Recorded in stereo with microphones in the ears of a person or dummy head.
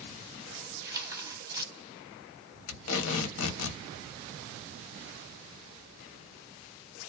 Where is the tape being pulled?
70° left (ahead or behind), 1.0 m.